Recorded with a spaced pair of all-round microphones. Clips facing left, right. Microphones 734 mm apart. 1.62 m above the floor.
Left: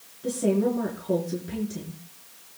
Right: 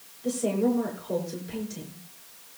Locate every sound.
0.2 s a woman speaking: 75° left (ahead or behind), 5 m